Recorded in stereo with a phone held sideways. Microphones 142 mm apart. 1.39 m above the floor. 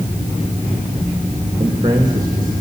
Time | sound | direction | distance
1.6 | a man speaking | 25° right (ahead or behind) | 3 m